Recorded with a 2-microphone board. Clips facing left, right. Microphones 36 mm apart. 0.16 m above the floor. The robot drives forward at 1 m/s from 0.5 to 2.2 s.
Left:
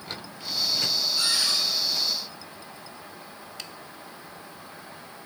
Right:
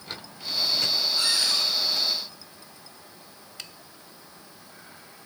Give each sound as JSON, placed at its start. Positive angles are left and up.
{"t": 1.2, "sound": "a cupboard door", "side_deg": 65, "distance_m": 3.5}